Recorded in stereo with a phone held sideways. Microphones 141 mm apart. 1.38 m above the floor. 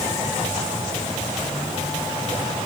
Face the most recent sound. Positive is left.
No sound to turn to.